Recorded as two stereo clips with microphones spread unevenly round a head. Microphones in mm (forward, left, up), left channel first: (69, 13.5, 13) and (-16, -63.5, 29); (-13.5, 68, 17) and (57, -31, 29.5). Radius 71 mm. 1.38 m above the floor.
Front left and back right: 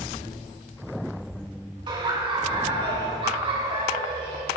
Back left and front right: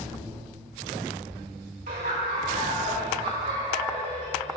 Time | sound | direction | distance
1.9 | laughter | 90° right | 3 m